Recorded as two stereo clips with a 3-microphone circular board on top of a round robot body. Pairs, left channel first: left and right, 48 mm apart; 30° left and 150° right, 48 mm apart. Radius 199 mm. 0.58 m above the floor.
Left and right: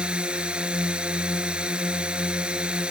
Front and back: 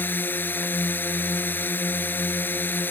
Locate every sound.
0.0 s a drone: 20° right